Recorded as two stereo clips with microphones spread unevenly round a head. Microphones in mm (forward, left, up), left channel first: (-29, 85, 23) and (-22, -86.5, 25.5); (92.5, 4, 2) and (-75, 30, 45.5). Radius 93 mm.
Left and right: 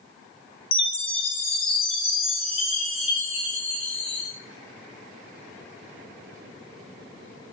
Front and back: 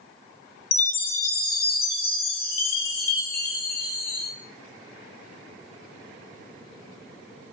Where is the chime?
30° left, 0.6 m.